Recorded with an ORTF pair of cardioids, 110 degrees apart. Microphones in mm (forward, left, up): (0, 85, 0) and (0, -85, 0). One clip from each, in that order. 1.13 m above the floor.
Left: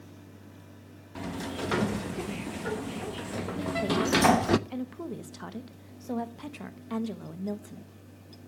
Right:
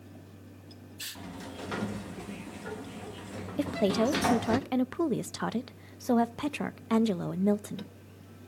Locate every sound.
1.1 s a sliding door: 35° left, 0.9 m
3.6 s a woman speaking: 45° right, 0.9 m